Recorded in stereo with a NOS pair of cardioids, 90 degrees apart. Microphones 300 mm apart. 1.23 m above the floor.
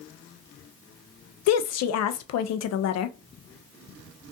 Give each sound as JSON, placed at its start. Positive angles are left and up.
{"t": 1.5, "sound": "a woman speaking", "azimuth_deg": 60, "distance_m": 0.5}